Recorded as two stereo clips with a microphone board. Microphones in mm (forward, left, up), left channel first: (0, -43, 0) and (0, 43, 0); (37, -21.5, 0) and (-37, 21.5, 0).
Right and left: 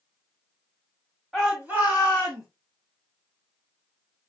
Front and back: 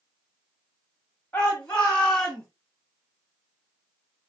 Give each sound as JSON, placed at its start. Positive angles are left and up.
{"t": 1.3, "sound": "a shout", "azimuth_deg": 10, "distance_m": 1.5}